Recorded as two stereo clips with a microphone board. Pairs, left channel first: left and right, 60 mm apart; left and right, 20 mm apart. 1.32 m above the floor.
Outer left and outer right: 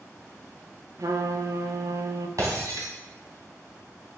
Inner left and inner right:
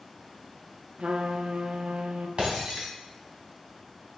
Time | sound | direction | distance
1.0 | a trumpet | 70° right (ahead or behind) | 0.8 m
2.4 | breaking glass | 70° right (ahead or behind) | 2.5 m